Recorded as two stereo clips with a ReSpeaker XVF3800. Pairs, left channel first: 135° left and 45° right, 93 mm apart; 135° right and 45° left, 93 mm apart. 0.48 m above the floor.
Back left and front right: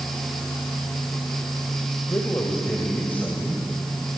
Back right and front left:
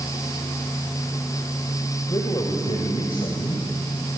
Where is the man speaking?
170° right, 2.5 m; by 3.6 s 145° right, 3.5 m.